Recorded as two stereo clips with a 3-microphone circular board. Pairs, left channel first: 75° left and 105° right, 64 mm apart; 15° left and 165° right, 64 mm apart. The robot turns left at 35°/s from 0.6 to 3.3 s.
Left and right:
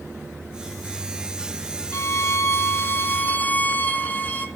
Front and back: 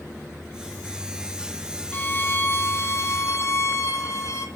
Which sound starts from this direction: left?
A violin, at 1.9 s.